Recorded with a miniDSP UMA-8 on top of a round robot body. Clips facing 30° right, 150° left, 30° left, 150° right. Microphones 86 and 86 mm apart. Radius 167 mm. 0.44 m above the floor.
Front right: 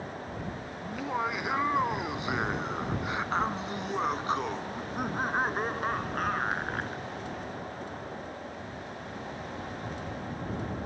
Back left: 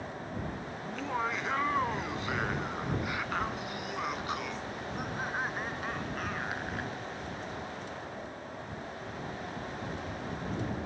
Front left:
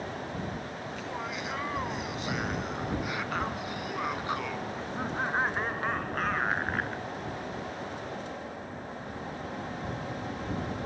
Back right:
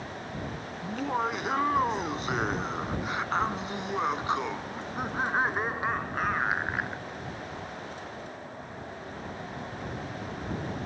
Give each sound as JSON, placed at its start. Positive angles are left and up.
{"t": 0.8, "sound": "laughter", "azimuth_deg": -110}